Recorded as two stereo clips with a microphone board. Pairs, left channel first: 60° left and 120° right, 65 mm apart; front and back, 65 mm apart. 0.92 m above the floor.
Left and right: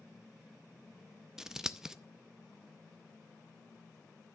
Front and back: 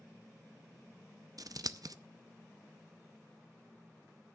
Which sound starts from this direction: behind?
Scissors, at 1.4 s.